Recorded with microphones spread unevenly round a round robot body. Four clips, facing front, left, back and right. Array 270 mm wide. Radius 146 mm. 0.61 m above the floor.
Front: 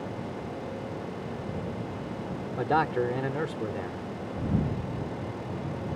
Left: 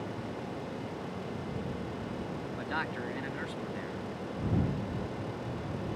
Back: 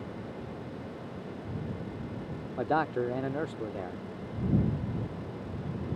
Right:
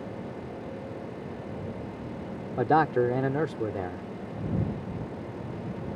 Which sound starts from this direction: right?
A man speaking, at 2.6 s.